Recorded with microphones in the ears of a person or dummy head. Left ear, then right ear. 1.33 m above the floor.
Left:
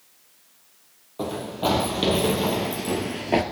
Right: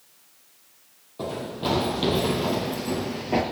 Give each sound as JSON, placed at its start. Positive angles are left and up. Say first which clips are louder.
{"t": 1.2, "sound": "running footsteps", "louder": "left 3 dB", "side_deg": 25, "distance_m": 3.0}